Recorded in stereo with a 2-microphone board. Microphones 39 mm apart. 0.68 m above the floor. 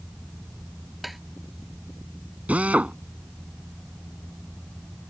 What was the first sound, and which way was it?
Tapping, 5° right (ahead or behind).